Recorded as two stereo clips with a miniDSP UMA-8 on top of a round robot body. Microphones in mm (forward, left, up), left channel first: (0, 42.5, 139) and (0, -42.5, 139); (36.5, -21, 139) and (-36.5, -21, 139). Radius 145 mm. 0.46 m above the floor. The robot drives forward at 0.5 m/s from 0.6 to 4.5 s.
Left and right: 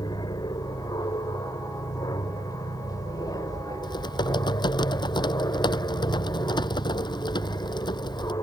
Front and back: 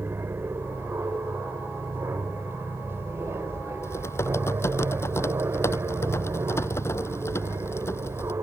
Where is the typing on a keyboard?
55° left.